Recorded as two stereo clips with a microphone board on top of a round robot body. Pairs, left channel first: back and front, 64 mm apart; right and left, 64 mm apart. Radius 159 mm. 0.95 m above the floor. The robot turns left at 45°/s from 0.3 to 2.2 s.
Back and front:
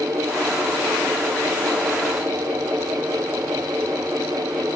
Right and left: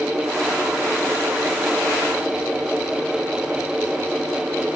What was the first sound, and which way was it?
Only background noise.